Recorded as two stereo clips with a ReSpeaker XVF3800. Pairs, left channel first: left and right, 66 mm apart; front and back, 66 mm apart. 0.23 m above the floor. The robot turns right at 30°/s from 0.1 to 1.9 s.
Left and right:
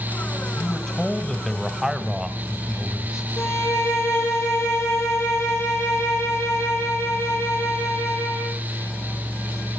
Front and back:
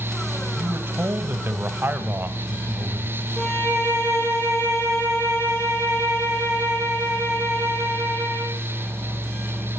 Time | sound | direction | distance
0.6 | a man speaking | 160° left | 1.4 m
3.4 | a violin | 40° left | 6.5 m